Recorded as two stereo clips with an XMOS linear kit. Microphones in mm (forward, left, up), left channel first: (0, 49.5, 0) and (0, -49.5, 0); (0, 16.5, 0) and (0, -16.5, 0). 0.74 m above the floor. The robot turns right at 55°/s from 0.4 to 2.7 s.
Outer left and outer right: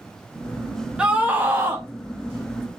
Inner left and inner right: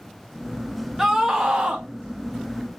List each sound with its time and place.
1.0 s a scream: 10° right (ahead or behind), 0.5 m; by 1.9 s 25° right (ahead or behind), 0.5 m